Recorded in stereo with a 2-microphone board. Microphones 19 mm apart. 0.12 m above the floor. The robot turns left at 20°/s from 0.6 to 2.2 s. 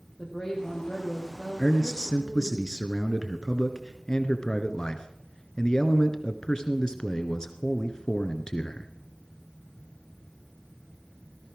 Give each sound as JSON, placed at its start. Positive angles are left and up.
{"t": 0.2, "sound": "a woman speaking", "azimuth_deg": 25, "distance_m": 6.0}
{"t": 1.6, "sound": "a man speaking", "side_deg": 35, "distance_m": 1.4}